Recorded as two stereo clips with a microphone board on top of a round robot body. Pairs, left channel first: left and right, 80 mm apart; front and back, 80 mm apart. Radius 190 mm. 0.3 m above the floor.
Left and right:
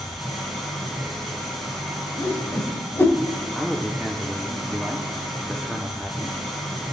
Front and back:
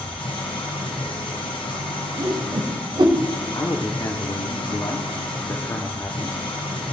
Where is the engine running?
Straight ahead, 1.5 m.